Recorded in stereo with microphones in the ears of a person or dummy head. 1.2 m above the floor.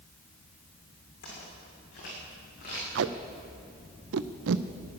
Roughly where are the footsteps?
Left.